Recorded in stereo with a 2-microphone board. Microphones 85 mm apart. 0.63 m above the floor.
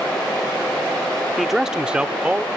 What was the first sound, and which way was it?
A man speaking, centre (ahead or behind).